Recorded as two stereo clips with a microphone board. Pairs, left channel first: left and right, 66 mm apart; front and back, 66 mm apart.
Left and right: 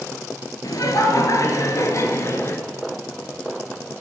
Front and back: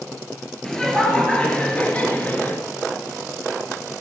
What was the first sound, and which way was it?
Laughter, 80° left.